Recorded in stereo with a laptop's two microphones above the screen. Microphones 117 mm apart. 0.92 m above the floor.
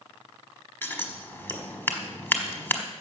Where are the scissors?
15° left (ahead or behind), 1.2 m.